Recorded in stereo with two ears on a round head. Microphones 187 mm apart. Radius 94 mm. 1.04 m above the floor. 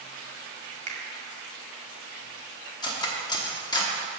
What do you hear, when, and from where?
0.9 s a finger snap: 35° right (ahead or behind), 1.7 m
2.8 s cutlery clinking: 20° left (ahead or behind), 1.0 m